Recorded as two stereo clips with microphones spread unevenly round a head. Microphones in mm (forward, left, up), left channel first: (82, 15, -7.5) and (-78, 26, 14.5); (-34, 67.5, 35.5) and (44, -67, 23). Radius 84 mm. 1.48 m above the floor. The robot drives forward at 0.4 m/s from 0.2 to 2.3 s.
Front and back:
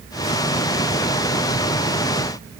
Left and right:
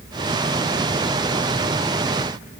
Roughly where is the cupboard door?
I don't hear a cupboard door.